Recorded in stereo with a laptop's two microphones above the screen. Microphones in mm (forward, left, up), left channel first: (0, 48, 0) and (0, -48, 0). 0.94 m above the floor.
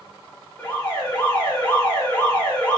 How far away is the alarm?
About 1.7 m.